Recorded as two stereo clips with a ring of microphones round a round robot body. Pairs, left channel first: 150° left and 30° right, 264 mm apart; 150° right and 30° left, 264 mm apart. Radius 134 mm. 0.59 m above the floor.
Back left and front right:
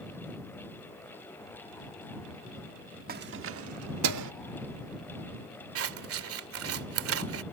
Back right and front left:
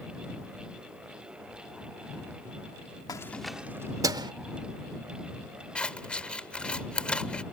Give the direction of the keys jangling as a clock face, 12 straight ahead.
3 o'clock.